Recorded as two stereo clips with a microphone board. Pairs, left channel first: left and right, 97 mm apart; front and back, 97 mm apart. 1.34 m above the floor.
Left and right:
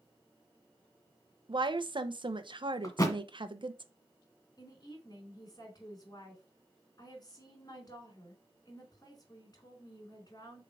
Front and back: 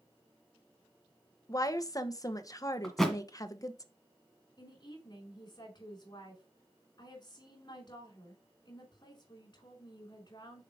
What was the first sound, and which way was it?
A woman speaking, 55° right.